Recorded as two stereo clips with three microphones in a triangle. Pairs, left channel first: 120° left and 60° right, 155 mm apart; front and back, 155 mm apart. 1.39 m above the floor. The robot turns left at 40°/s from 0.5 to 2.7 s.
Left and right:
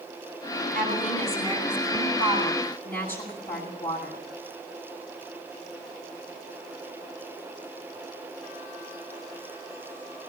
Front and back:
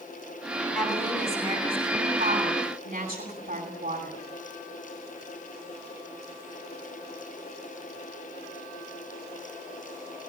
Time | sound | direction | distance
0.8 | a woman speaking | 85° right | 9.5 m